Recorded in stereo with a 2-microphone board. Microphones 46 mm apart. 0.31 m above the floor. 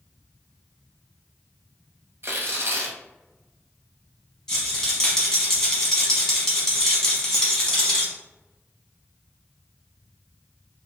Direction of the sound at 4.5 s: 10° left (ahead or behind).